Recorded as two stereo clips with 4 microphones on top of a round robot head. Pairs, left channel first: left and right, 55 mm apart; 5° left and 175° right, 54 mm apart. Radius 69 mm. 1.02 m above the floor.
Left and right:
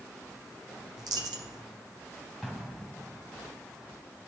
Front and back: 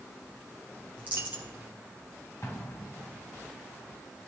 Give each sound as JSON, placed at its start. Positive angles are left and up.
{"t": 1.0, "sound": "a dropped coin", "azimuth_deg": -105, "distance_m": 0.8}
{"t": 2.4, "sound": "an explosion", "azimuth_deg": -5, "distance_m": 0.9}